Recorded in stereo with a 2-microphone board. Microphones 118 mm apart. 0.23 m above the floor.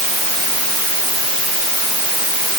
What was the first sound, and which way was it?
Only background noise.